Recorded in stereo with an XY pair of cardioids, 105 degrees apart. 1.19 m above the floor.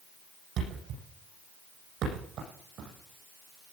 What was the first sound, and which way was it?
A thud, 70° right.